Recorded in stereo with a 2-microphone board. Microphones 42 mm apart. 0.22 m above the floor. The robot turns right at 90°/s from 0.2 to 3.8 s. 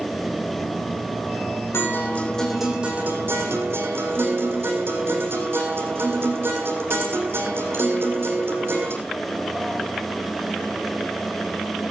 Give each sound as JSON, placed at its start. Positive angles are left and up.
{"t": 1.7, "sound": "a guitar", "azimuth_deg": 110, "distance_m": 7.5}